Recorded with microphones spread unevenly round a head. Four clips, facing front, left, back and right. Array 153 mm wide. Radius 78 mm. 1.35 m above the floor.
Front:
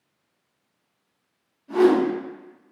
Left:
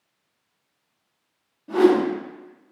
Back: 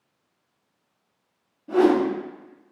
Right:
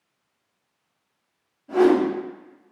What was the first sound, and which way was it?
A whoosh, 120° left.